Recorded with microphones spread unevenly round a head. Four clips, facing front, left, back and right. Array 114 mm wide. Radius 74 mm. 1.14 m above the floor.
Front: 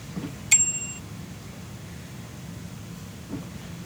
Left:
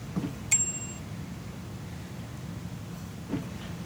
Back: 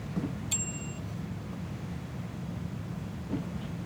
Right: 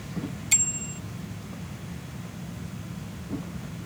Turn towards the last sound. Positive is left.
turn(degrees=-10)